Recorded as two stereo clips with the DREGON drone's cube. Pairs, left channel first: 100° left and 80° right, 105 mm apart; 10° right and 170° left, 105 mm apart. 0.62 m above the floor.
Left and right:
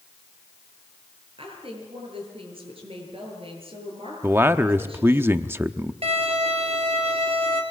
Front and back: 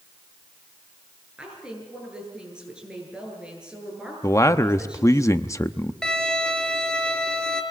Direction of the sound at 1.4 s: 110° right.